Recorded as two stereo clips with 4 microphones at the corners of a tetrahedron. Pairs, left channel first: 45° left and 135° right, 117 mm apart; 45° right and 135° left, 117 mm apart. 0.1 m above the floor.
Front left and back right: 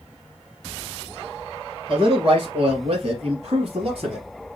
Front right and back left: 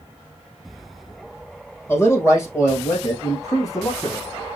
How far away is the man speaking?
About 2.5 m.